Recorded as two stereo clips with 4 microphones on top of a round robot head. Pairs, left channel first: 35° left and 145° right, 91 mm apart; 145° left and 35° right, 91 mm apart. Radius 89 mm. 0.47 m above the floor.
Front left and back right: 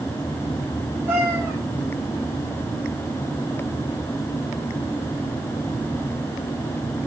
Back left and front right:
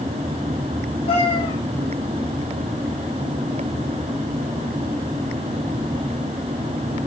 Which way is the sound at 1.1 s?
150° left.